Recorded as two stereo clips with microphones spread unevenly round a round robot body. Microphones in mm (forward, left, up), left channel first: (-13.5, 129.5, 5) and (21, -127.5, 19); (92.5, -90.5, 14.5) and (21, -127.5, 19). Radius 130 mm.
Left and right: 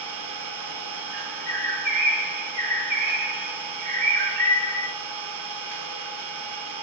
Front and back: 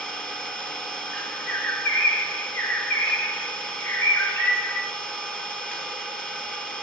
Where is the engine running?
45° right, 1.6 m.